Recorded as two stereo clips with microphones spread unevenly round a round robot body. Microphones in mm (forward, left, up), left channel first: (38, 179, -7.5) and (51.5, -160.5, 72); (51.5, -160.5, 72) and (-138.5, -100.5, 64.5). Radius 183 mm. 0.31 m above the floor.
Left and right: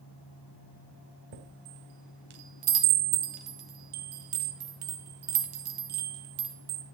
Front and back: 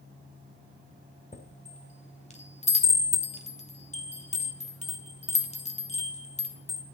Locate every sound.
1.3 s a chime: 70° right, 2.5 m